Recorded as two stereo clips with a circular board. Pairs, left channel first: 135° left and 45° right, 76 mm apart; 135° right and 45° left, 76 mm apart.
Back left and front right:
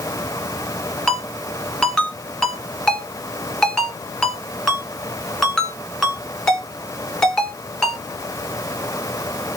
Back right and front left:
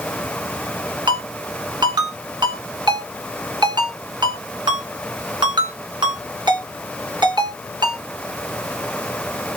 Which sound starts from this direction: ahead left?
A ringtone, at 1.1 s.